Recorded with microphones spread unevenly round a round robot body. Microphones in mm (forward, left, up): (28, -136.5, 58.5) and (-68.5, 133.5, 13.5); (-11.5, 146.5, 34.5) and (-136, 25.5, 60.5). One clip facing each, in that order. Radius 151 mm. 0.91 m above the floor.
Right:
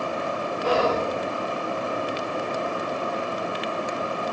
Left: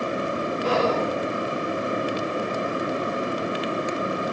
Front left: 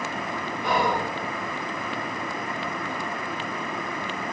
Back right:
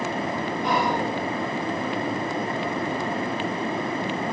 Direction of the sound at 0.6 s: 50° left.